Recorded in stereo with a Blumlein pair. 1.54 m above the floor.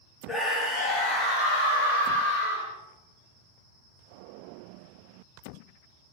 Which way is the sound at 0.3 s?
5° left.